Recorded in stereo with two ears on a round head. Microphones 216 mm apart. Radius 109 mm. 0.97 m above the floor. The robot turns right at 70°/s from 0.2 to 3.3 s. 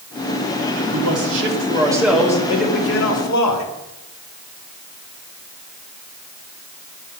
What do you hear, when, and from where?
0.9 s a man speaking: 85° right, 2 m; by 3.6 s 80° left, 2 m